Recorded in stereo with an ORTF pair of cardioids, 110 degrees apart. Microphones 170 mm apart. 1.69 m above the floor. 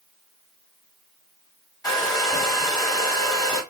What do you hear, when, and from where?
1.8 s a hair dryer: 20° left, 1.4 m